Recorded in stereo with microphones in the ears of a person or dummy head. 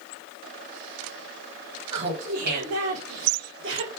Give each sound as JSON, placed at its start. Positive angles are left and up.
{"t": 1.9, "sound": "laughter", "side_deg": -30, "distance_m": 1.5}